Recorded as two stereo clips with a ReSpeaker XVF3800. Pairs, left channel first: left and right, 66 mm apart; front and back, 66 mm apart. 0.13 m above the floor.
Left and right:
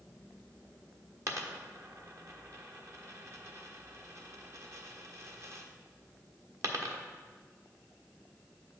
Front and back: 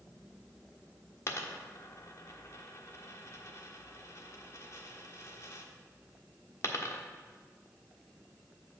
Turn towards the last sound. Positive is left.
turn(degrees=-45)